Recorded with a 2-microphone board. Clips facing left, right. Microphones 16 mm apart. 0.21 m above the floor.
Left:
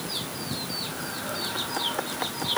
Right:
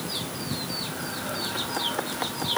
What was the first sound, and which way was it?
Only background noise.